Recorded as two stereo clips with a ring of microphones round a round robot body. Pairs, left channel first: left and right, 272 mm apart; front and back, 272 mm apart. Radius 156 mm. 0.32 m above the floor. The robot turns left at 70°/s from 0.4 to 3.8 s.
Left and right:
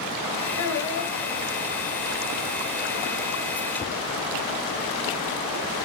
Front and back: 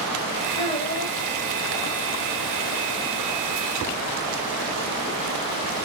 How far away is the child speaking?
About 0.8 m.